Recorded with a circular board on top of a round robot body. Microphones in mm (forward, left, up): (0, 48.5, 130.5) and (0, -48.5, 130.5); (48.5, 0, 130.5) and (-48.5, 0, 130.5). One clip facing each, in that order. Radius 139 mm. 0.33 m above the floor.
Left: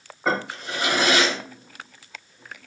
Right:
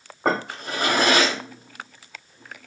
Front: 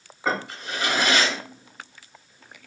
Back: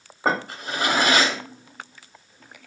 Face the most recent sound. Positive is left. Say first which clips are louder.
# right 1 dB, back 3 dB
turn(degrees=-130)